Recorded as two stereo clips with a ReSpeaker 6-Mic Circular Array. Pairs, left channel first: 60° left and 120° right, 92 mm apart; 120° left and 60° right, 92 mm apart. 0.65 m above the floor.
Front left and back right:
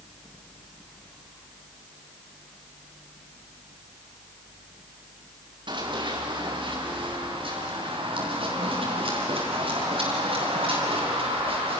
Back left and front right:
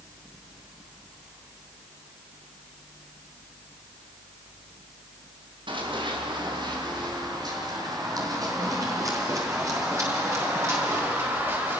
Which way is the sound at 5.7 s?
90° right.